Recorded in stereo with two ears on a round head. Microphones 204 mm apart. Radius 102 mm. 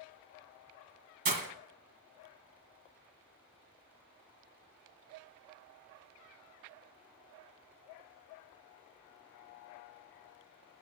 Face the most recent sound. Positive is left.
turn(degrees=-40)  # may be behind; listen again after turning